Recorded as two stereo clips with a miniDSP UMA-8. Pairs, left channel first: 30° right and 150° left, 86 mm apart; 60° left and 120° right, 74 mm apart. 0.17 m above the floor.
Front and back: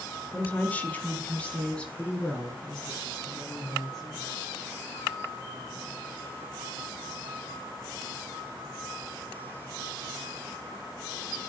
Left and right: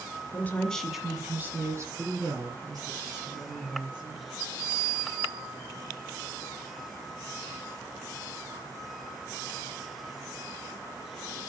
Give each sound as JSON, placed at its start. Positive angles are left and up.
{"t": 0.3, "sound": "a woman speaking", "azimuth_deg": 30, "distance_m": 1.6}